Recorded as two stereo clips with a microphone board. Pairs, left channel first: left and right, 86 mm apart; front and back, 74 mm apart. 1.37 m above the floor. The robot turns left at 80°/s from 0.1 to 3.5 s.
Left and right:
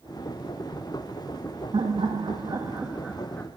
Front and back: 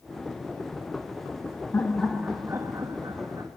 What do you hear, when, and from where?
1.7 s laughter: 60° right, 1.5 m; by 3.5 s 155° left, 1.5 m